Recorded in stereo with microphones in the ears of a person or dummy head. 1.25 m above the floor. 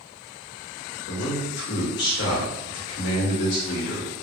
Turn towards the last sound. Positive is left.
turn(degrees=60)  # may be behind; listen again after turning